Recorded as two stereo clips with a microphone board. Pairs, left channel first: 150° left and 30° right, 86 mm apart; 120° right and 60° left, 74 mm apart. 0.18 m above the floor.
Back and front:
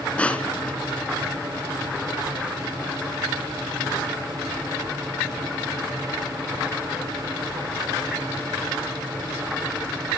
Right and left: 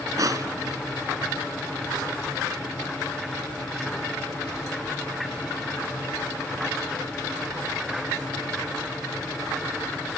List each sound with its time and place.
0.2 s crushing: 80° left, 2 m